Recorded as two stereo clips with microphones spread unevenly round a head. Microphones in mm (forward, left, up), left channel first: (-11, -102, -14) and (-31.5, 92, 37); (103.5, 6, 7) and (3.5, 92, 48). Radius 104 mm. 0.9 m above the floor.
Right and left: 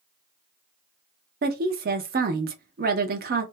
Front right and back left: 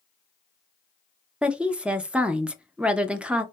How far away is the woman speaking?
About 0.6 m.